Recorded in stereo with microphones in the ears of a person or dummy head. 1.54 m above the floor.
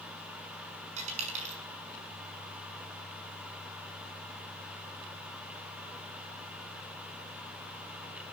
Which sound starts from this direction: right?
A dropped coin, at 1.0 s.